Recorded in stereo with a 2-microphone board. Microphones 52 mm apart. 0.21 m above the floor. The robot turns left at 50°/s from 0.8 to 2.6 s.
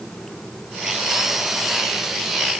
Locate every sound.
Only background noise.